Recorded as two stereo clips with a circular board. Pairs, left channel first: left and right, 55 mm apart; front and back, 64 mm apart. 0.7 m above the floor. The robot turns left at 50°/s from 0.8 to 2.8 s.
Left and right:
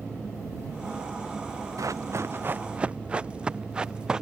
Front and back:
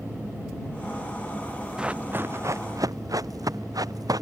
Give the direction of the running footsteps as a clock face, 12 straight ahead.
3 o'clock.